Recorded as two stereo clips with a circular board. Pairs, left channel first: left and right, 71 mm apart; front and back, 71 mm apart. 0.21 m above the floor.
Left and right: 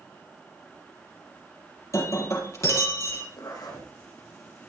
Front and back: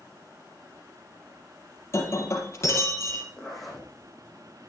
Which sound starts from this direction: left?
A zipper, at 3.4 s.